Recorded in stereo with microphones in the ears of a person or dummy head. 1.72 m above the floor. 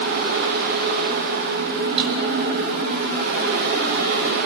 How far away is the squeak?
I don't hear a squeak.